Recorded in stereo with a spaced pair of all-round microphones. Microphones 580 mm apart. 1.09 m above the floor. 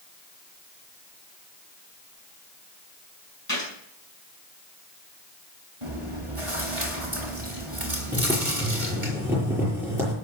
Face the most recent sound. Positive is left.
turn(degrees=-5)  # may be behind; listen again after turning